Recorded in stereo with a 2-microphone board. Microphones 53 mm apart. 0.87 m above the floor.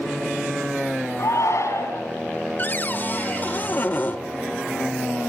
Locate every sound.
1.2 s a shout: 70° left (ahead or behind), 7 m
2.6 s a cupboard door: 35° left (ahead or behind), 0.8 m